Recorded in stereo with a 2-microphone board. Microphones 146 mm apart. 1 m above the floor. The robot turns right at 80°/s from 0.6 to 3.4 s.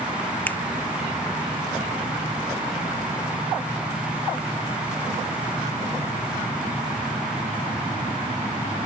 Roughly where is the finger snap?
Centre.